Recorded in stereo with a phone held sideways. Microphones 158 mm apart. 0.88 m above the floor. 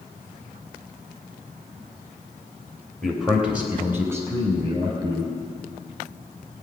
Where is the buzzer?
I don't hear a buzzer.